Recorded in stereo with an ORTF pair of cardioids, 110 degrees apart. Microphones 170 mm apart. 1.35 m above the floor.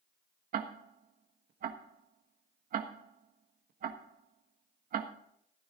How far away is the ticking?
About 1.4 m.